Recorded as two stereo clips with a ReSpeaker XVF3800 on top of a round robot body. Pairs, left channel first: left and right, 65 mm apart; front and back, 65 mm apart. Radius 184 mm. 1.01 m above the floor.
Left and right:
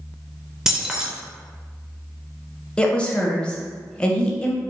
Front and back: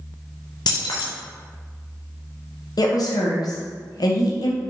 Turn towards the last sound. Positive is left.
turn(degrees=15)